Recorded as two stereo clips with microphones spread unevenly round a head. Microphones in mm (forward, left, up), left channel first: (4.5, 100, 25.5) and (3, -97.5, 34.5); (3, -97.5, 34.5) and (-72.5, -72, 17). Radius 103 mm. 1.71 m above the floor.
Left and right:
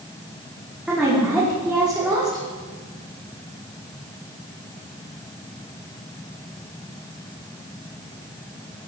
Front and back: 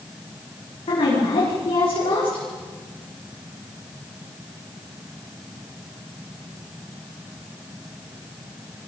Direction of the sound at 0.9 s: 5° right.